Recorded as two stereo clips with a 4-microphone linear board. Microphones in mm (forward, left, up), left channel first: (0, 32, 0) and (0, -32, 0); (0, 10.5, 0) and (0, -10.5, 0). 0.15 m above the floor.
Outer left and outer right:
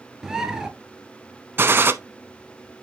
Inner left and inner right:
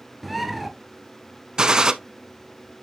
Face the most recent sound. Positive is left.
turn(degrees=-35)  # may be behind; listen again after turning